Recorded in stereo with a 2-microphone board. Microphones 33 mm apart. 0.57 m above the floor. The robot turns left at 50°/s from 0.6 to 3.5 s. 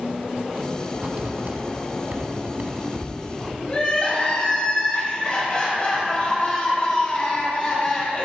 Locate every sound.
0.9 s writing: 30° right (ahead or behind), 1.1 m; by 3.6 s 20° right (ahead or behind), 1.1 m
3.7 s crying: 35° left (ahead or behind), 1.8 m